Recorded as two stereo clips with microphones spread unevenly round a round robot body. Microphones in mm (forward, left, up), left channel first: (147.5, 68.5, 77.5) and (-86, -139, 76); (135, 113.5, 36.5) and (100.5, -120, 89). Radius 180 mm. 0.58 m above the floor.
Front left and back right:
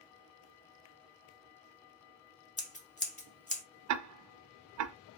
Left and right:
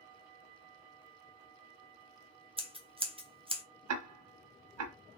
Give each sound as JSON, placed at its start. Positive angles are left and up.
{"t": 2.6, "sound": "scissors", "azimuth_deg": -25, "distance_m": 1.2}
{"t": 3.9, "sound": "ticking", "azimuth_deg": -100, "distance_m": 0.6}